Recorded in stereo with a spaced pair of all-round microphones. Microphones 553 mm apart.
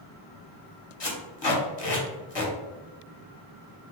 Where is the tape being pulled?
45° left (ahead or behind), 0.9 m.